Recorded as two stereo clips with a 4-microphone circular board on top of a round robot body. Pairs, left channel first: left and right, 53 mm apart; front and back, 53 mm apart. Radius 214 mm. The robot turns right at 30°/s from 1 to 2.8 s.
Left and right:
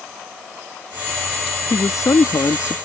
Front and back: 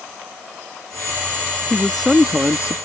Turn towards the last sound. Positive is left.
turn(degrees=120)